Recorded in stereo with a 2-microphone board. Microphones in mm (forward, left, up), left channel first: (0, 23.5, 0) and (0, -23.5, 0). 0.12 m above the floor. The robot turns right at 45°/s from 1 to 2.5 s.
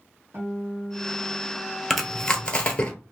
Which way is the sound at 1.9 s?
Centre (ahead or behind).